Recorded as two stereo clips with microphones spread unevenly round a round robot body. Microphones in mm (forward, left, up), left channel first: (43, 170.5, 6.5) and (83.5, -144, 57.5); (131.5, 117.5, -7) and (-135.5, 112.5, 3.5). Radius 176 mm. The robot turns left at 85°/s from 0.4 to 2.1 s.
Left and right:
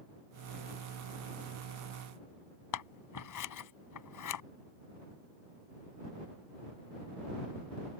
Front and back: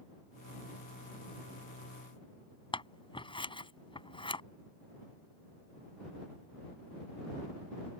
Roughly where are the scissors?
Left.